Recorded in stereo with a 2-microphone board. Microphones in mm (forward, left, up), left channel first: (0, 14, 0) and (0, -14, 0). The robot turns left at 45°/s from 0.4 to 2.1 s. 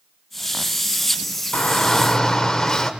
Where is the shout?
45° left (ahead or behind), 1.3 m; by 2.9 s 25° left (ahead or behind), 1.3 m.